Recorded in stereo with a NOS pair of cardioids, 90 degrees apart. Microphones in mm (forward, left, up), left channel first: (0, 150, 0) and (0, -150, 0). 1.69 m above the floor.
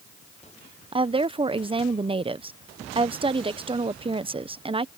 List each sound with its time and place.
0.9 s a woman speaking: 20° right